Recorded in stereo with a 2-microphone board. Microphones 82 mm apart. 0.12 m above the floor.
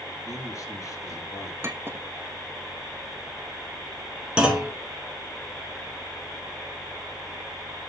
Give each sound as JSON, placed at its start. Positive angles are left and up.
{"t": 0.2, "sound": "a man speaking", "side_deg": 45, "distance_m": 2.0}
{"t": 1.6, "sound": "a clink", "side_deg": -30, "distance_m": 0.8}
{"t": 4.4, "sound": "a clunk", "side_deg": -15, "distance_m": 1.6}